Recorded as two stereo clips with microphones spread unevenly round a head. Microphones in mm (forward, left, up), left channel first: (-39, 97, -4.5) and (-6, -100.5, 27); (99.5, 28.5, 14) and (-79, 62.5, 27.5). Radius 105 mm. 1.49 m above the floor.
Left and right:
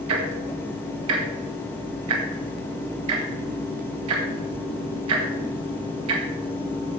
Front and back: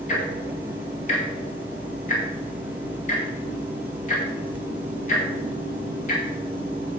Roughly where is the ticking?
Right.